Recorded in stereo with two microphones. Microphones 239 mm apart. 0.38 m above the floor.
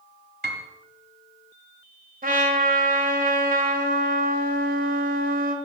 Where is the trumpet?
40° right (ahead or behind), 1.8 m.